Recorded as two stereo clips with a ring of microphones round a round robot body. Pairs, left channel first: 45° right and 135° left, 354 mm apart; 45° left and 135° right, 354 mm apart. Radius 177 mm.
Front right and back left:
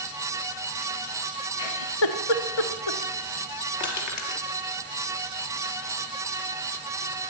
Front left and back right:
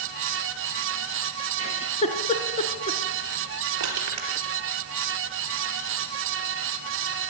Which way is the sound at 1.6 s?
30° right.